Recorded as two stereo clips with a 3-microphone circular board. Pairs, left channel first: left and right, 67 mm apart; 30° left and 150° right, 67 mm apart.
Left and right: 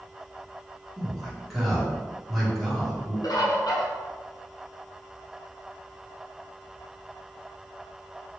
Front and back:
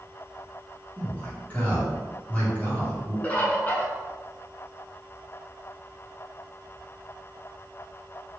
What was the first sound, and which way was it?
A man speaking, straight ahead.